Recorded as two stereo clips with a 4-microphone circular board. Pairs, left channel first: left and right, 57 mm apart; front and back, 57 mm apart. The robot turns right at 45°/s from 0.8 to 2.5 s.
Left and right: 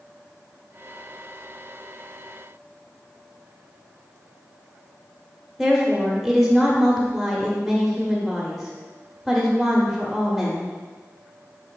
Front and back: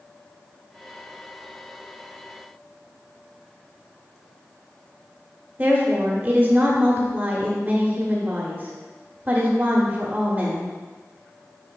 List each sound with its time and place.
5.6 s a woman speaking: 175° right, 0.9 m